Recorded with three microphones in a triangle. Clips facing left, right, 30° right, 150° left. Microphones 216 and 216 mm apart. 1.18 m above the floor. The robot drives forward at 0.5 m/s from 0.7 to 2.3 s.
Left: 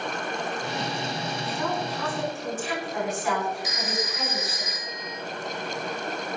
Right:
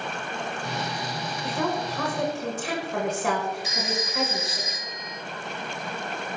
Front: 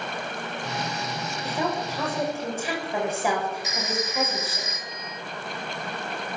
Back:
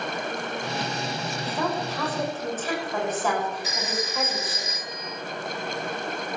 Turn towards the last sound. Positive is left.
turn(degrees=-150)